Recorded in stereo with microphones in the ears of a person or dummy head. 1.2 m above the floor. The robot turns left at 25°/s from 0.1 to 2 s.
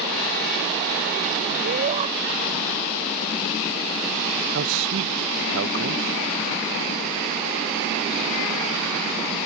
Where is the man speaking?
70° right (ahead or behind).